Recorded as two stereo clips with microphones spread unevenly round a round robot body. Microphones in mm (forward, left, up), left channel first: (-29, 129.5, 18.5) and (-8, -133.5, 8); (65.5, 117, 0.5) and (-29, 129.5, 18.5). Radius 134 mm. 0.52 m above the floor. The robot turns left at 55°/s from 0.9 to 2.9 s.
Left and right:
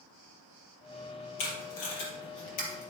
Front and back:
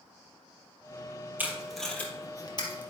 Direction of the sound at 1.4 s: 105° left.